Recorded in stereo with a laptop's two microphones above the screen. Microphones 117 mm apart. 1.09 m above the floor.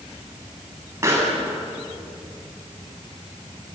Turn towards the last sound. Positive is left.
turn(degrees=-25)  # may be behind; listen again after turning